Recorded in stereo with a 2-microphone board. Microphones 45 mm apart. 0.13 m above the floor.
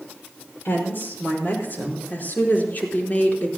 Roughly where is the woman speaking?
Left.